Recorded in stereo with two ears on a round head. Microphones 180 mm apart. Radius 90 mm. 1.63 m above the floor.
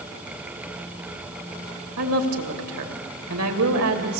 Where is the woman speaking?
90° right, 3 m.